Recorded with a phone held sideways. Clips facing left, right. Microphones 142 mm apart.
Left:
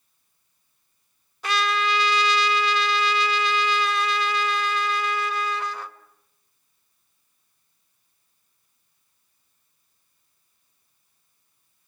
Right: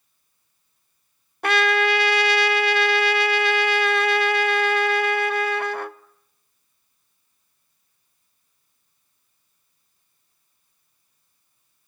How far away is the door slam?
No door slam in this recording.